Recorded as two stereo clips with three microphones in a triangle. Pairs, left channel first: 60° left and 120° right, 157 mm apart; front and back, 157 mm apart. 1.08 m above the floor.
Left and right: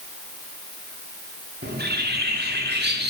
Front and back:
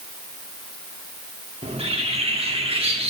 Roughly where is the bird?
Behind right.